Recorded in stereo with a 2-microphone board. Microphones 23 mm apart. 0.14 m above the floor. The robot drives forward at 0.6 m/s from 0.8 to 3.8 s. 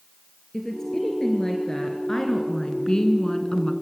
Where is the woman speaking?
20° left (ahead or behind), 2.5 m; by 3.7 s 30° left (ahead or behind), 1.4 m.